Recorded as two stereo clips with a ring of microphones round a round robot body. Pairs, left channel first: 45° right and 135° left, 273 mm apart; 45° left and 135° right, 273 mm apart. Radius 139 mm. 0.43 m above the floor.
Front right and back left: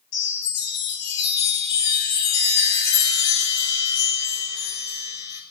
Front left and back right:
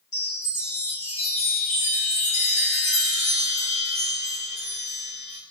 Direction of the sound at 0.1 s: 20° right.